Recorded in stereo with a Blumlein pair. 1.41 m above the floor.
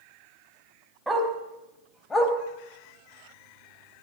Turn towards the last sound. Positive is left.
turn(degrees=20)